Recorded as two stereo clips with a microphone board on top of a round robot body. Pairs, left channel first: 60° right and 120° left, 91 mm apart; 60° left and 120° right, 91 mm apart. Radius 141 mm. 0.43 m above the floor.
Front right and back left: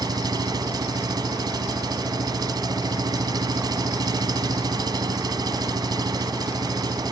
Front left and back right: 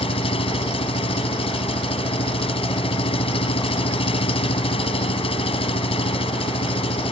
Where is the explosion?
No explosion in this recording.